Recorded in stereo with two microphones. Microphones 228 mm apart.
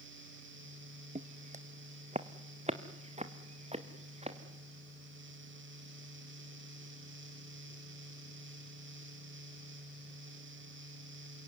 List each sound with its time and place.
1.1 s footsteps: 35° right (ahead or behind), 0.7 m; by 4.4 s 30° right (ahead or behind), 2.5 m